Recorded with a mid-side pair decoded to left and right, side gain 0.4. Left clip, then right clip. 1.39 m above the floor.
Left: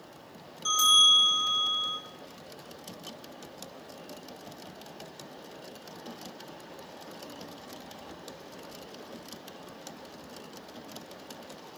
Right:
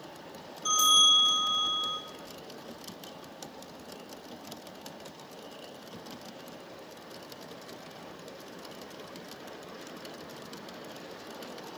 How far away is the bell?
About 4 m.